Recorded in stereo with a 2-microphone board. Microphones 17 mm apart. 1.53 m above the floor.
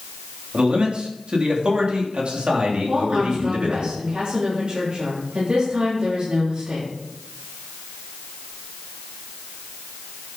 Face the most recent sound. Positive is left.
turn(degrees=-75)  # may be behind; listen again after turning